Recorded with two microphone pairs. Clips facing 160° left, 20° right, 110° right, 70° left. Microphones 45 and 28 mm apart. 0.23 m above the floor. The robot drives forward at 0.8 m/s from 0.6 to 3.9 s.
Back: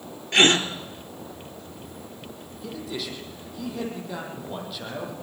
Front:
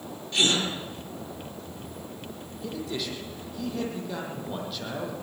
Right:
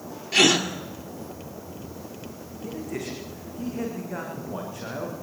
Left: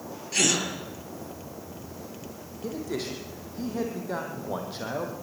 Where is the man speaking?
70° left, 8.5 m; by 5.1 s 75° left, 8.5 m.